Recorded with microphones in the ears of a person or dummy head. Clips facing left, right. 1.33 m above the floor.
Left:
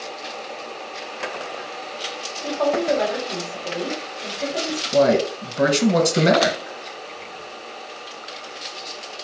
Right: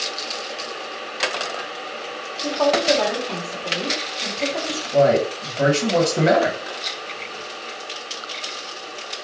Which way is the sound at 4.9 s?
45° left (ahead or behind).